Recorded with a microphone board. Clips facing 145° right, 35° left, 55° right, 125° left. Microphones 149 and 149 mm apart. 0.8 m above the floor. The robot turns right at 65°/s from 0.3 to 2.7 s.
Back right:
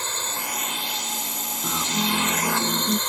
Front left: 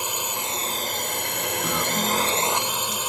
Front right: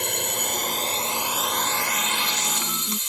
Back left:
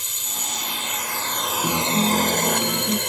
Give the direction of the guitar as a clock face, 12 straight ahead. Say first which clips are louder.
Back right 1 dB, back left 7 dB; 8 o'clock.